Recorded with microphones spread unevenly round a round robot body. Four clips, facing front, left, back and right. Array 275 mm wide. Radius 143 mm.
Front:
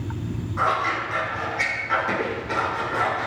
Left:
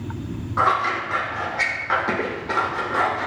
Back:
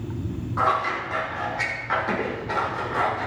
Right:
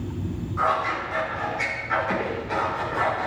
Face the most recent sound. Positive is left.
turn(degrees=90)